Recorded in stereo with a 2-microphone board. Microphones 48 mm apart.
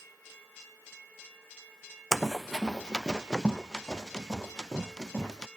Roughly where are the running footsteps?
Centre.